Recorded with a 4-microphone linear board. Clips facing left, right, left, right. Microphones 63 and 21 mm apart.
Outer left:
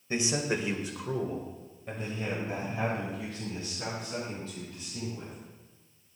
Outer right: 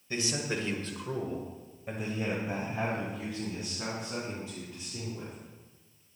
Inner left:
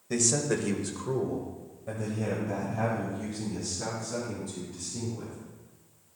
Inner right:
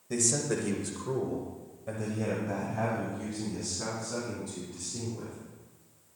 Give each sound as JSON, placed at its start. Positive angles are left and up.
{"t": 0.1, "sound": "a man speaking", "side_deg": 25, "distance_m": 1.4}